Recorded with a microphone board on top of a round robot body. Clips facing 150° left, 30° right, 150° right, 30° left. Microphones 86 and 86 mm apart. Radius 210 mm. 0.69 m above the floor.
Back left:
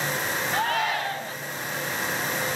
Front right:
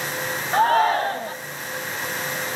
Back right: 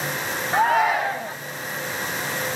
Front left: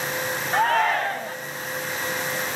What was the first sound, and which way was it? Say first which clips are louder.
A shout: front right 10 dB, back right 2 dB; 70° right.